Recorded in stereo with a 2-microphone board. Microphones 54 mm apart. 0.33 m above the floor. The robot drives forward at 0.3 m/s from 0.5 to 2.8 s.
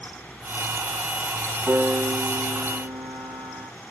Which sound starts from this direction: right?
A piano, at 1.7 s.